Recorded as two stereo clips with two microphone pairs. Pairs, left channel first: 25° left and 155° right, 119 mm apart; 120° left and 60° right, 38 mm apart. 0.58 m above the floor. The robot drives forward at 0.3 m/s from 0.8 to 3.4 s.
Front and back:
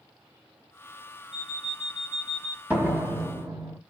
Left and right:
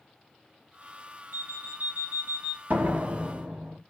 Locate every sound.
1.3 s an alarm clock: 70° right, 1.2 m; by 2.6 s 90° right, 1.1 m
2.7 s a door slam: 80° right, 1.1 m; by 3.8 s 90° right, 1.1 m